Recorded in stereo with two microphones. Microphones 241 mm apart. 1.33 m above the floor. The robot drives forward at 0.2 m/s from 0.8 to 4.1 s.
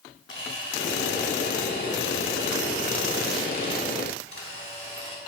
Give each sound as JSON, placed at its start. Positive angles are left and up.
{"t": 0.3, "sound": "a camera shutter", "side_deg": 50, "distance_m": 2.5}